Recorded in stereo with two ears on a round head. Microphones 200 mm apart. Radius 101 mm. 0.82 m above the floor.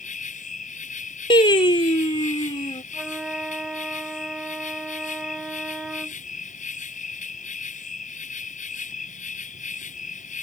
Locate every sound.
0.0 s an insect: 35° left (ahead or behind)
1.3 s singing: 25° left (ahead or behind)
2.9 s a flute: 5° right (ahead or behind)